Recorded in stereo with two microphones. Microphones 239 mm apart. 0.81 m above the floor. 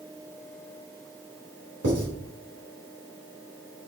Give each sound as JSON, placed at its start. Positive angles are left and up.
{"t": 1.8, "sound": "writing", "side_deg": -80, "distance_m": 3.5}